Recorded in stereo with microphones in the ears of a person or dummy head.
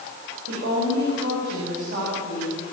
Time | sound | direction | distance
0.5 | a woman speaking | 60° right (ahead or behind) | 5.5 m